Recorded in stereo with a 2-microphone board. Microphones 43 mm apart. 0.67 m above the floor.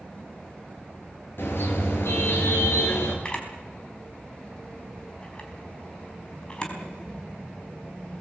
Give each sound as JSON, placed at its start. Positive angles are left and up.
{"t": 1.4, "sound": "a car horn", "side_deg": 55, "distance_m": 5.5}
{"t": 3.2, "sound": "a camera shutter", "side_deg": 25, "distance_m": 4.0}